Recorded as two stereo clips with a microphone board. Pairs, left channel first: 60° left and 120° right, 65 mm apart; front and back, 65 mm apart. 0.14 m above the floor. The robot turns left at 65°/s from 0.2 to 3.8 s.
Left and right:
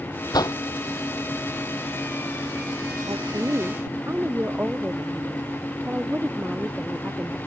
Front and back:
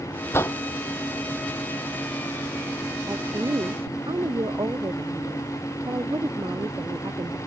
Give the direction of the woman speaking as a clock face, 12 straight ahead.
5 o'clock.